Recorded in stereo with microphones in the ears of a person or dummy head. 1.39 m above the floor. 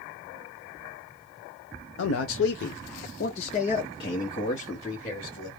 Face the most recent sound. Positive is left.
turn(degrees=15)  # may be behind; listen again after turning